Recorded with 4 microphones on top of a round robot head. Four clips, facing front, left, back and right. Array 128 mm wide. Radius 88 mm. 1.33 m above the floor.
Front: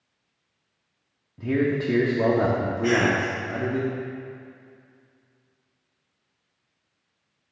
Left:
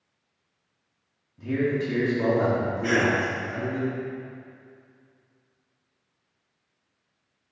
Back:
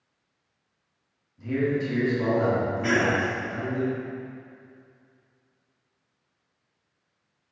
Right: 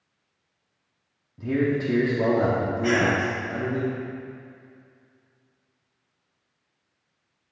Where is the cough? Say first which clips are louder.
Right 1 dB, front 3 dB; straight behind, 2.0 m.